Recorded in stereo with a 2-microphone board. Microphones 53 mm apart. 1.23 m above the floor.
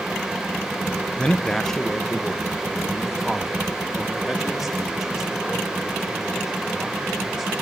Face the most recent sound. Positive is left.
turn(degrees=-10)  # may be behind; listen again after turning